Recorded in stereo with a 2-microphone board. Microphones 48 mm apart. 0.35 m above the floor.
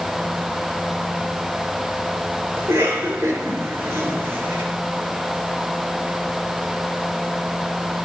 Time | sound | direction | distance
2.6 | a cough | 65° right (ahead or behind) | 5 m